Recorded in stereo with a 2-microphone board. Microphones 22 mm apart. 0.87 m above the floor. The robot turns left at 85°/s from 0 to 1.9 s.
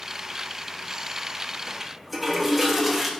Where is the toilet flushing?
20° right (ahead or behind), 1.0 m; by 3.1 s 5° right (ahead or behind), 1.0 m.